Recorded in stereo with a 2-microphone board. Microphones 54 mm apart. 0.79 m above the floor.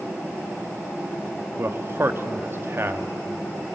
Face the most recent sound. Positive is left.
turn(degrees=-45)  # may be behind; listen again after turning